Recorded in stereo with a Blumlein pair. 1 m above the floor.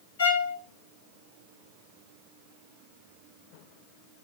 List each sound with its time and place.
0.2 s a violin: 60° left, 1.1 m